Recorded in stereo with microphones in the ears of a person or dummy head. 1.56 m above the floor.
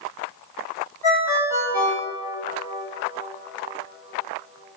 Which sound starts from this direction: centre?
A ringtone, at 1.0 s.